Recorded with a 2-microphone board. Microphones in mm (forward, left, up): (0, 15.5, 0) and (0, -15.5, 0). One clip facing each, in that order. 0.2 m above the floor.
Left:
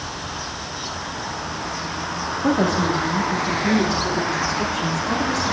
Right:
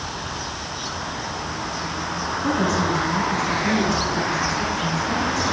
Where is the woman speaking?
65° left (ahead or behind), 6.5 m.